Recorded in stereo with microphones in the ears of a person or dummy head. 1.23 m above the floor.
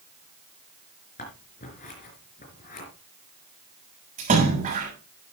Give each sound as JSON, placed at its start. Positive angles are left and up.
{"t": 1.2, "sound": "scissors", "side_deg": 40, "distance_m": 4.0}
{"t": 4.2, "sound": "a splash", "side_deg": -40, "distance_m": 7.5}